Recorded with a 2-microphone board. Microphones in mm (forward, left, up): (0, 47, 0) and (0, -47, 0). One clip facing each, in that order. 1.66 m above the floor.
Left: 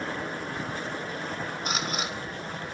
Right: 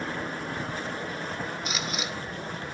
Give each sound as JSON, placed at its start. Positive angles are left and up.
{"t": 1.6, "sound": "a camera shutter", "side_deg": 50, "distance_m": 2.5}